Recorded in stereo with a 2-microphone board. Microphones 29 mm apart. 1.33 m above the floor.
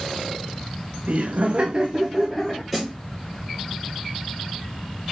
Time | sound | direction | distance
1.1 | laughter | 55° right (ahead or behind) | 0.7 m
2.7 | a snare drum | 10° right (ahead or behind) | 2 m